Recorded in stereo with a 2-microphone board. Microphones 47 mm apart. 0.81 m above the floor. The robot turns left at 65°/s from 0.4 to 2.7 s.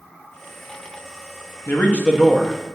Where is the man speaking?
50° left, 1.0 m; by 2.8 s 15° right, 1.0 m.